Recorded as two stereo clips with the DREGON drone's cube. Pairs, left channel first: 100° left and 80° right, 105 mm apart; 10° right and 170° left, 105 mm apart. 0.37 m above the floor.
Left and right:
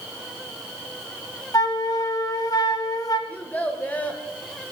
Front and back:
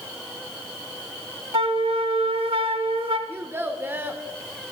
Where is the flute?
150° left, 0.8 m.